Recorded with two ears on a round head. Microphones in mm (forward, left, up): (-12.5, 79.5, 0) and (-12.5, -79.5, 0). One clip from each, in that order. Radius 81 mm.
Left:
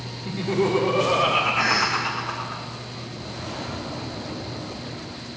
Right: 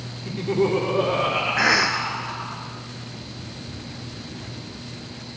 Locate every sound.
0.2 s laughter: 5° left (ahead or behind), 1.9 m; by 2.6 s 50° left (ahead or behind), 3.5 m
1.6 s a cough: 50° right (ahead or behind), 0.5 m